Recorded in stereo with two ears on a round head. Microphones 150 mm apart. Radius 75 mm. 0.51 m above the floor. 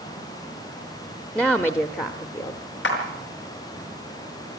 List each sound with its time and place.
1.4 s a woman speaking: 5° left (ahead or behind), 1.0 m; by 2.6 s 35° left (ahead or behind), 1.3 m
2.8 s a clap: 80° left, 5 m